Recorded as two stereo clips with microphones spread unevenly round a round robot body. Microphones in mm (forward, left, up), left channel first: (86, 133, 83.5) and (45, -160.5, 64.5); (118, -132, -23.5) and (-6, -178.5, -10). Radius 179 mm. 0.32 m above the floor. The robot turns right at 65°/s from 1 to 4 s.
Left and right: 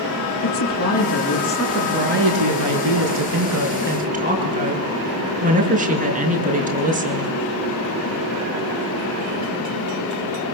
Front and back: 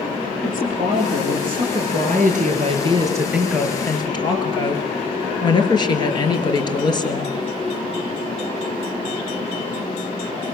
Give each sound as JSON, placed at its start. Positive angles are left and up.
{"t": 0.4, "sound": "a woman speaking", "azimuth_deg": 130, "distance_m": 6.5}